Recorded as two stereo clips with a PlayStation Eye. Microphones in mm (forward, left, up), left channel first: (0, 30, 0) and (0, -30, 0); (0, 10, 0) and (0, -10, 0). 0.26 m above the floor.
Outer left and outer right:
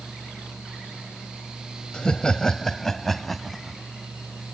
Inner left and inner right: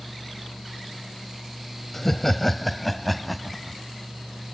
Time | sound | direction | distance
1.9 | laughter | 15° left (ahead or behind) | ?